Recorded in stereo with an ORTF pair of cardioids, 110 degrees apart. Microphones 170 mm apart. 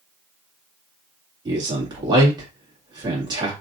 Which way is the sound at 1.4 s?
25° right.